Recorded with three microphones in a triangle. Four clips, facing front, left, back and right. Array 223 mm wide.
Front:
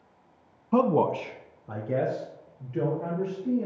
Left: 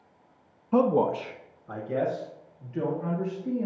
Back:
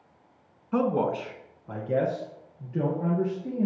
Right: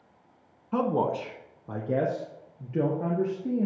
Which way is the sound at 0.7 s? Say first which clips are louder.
Left 3 dB, front 3 dB; 30° left.